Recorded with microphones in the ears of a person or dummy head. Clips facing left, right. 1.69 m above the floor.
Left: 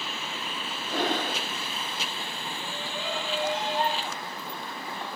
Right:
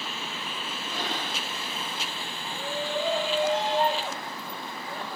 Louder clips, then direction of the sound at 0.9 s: Left 7 dB; 45° left (ahead or behind).